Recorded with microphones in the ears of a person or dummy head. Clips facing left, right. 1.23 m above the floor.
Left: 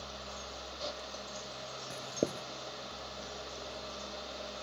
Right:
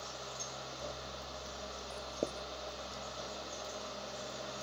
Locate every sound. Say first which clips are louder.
1.9 s writing: left 5 dB; 15° left (ahead or behind)